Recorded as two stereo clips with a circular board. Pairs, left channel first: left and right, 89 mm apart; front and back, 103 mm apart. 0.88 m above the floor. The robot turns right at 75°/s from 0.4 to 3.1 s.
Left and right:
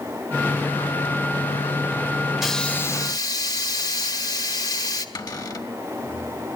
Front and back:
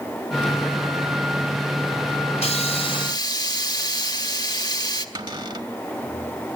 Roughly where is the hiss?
Ahead.